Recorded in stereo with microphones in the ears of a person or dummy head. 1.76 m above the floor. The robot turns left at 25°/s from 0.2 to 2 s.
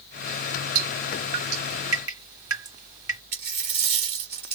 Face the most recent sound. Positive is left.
turn(degrees=-25)  # may be behind; listen again after turning